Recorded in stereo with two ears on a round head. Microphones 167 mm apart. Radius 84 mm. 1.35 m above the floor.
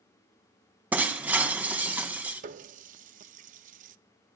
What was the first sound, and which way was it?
Breaking glass, 10° right (ahead or behind).